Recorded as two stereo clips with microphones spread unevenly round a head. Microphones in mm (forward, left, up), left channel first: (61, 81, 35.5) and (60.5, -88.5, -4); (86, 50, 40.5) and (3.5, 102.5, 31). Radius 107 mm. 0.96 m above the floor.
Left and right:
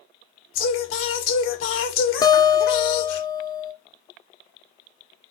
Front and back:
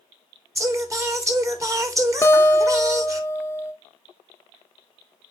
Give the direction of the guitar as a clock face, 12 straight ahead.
11 o'clock.